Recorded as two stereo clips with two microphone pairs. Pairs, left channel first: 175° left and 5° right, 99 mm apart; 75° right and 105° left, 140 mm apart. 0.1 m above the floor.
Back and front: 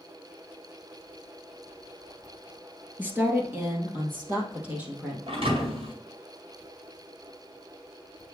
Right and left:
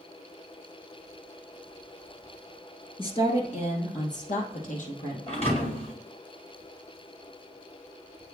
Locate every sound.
3.0 s a woman speaking: 65° right, 1.6 m; by 5.2 s 75° right, 3.5 m
5.3 s a thud: 30° right, 2.5 m